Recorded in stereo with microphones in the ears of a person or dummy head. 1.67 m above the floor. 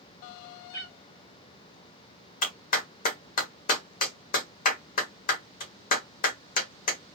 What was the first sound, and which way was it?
A cat meowing, 25° left (ahead or behind).